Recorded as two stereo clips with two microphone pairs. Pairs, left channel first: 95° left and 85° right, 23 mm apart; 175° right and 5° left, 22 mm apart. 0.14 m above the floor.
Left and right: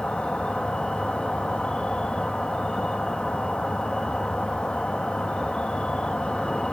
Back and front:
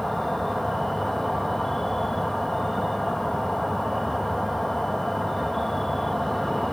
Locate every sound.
0.0 s an insect: 115° left, 1.4 m